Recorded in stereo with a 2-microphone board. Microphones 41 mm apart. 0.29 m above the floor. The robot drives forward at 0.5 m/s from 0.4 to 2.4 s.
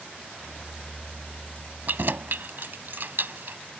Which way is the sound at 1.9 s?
55° right (ahead or behind).